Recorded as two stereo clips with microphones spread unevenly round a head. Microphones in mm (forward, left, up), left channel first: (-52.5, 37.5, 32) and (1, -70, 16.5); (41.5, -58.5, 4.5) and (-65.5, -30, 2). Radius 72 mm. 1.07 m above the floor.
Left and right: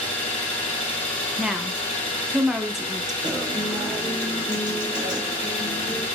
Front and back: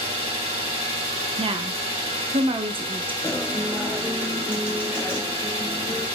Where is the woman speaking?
150° right, 0.5 m.